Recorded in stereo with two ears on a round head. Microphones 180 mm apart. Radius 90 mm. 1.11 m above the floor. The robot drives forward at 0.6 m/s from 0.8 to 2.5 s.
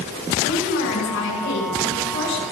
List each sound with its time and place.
0.4 s a woman speaking: 70° left (ahead or behind), 9 m; by 2.4 s 60° left (ahead or behind), 9.5 m